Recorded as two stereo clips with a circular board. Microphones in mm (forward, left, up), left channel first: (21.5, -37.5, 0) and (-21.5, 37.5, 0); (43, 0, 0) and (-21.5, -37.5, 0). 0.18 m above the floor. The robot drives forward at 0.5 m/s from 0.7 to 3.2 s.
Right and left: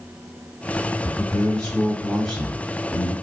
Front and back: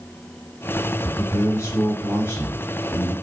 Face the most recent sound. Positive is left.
turn(degrees=35)